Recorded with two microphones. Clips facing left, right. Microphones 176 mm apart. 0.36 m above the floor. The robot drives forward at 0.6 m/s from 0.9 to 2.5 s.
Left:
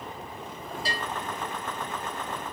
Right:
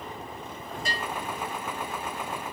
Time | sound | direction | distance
0.8 | a bell | 30° left (ahead or behind) | 4.5 m